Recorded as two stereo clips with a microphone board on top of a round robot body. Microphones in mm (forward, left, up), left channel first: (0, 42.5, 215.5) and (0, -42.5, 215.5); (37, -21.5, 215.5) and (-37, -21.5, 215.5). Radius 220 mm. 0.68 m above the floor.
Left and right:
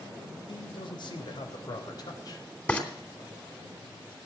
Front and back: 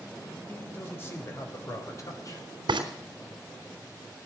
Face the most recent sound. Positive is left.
turn(degrees=165)